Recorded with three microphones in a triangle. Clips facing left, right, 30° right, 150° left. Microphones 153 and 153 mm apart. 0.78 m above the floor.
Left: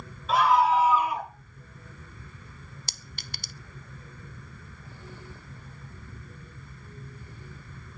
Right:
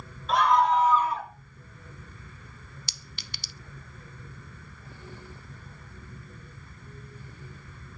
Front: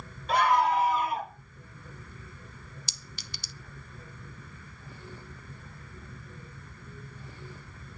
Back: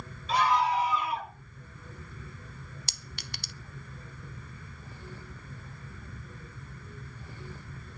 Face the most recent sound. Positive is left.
turn(degrees=130)